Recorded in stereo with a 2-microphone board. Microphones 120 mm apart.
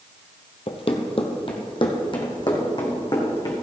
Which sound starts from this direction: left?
Running footsteps, at 0.7 s.